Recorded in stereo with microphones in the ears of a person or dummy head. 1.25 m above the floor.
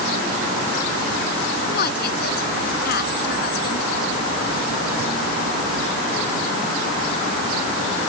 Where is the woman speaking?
55° left (ahead or behind); by 3.9 s 60° left (ahead or behind).